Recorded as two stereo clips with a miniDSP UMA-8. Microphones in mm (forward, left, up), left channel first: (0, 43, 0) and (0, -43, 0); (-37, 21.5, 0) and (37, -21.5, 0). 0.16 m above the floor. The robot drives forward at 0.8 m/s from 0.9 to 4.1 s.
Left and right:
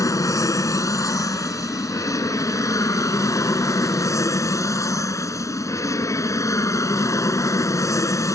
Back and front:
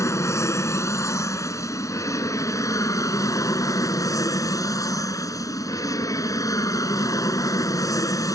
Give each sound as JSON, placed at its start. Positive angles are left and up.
{"t": 0.0, "sound": "an aircraft", "azimuth_deg": 115}